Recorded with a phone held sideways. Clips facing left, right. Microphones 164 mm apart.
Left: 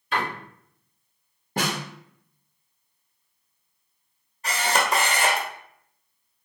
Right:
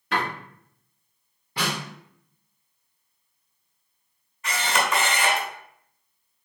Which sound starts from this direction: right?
A door slam, at 0.1 s.